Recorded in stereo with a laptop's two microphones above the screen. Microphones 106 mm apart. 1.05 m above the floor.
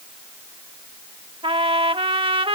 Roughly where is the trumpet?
Right.